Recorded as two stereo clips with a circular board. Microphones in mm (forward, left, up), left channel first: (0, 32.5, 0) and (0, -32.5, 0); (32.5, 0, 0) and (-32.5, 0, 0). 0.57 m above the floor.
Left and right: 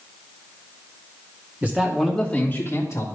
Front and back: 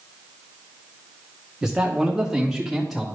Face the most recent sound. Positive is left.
turn(degrees=90)